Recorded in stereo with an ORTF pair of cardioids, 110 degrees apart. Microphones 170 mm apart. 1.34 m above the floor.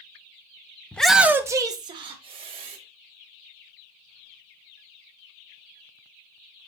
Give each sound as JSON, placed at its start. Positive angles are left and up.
{"t": 0.9, "sound": "a shout", "azimuth_deg": 10, "distance_m": 0.5}